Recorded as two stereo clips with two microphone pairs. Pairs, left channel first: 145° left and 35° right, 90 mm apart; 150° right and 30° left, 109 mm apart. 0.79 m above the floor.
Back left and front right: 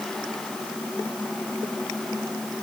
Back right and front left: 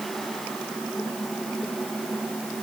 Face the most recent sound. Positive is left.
No sound to turn to.